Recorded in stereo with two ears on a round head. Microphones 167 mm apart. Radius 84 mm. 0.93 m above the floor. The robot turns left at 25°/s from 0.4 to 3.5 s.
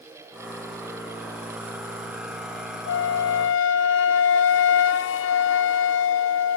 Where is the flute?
65° left (ahead or behind), 0.5 m; by 6.6 s 75° left (ahead or behind), 0.5 m.